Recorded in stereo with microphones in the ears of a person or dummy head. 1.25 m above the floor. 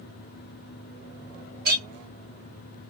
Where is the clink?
55° right (ahead or behind), 1.5 m.